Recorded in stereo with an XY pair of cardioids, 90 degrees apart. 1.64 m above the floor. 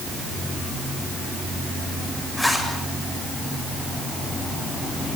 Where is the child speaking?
No child speaking in this recording.